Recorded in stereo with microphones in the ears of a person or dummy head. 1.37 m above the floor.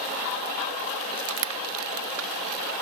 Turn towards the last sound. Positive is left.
turn(degrees=-75)  # may be behind; listen again after turning